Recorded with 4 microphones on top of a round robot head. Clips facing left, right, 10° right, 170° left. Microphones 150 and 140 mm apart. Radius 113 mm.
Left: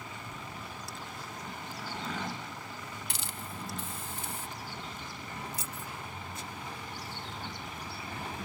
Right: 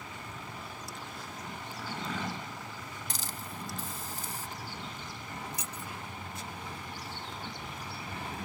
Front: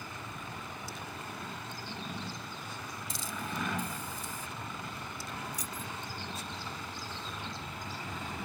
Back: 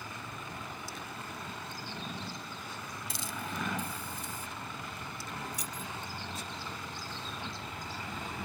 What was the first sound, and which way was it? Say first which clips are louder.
A hiss: even, front 1 dB; 140° right.